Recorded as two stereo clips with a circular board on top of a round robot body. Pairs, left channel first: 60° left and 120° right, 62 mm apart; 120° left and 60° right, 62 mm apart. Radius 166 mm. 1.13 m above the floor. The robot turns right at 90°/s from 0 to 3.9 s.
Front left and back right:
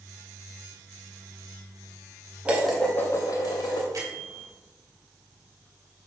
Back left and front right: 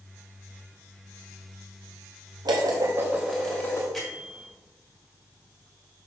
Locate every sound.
2.5 s dishes clattering: 50° right, 1.0 m; by 3.8 s 75° left, 1.0 m
3.9 s a bell: 150° right, 2.5 m